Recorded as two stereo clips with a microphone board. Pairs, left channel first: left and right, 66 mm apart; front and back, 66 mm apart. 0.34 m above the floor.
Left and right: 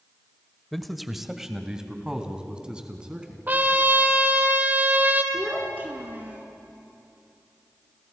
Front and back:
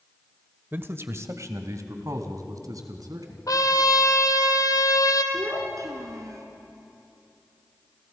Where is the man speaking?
175° left, 1.1 m; by 3.4 s 165° right, 3 m.